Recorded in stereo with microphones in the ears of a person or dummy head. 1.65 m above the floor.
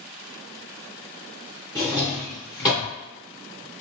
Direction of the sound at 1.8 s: Centre (ahead or behind).